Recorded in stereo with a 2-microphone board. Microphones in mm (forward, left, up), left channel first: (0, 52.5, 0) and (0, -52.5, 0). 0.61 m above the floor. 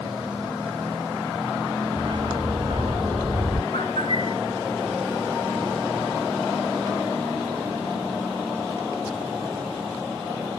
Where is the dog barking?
55° right (ahead or behind); by 3.6 s 60° right (ahead or behind).